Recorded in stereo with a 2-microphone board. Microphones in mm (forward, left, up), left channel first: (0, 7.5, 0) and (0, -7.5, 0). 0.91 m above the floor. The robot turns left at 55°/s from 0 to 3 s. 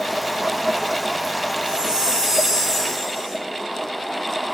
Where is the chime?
125° right, 5.5 m; by 3.4 s 160° left, 5.5 m.